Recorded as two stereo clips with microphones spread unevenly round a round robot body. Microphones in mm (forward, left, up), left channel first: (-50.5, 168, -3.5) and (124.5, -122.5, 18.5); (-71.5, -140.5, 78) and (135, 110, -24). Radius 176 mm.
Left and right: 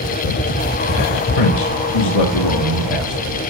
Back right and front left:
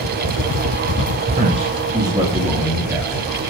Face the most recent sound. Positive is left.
turn(degrees=135)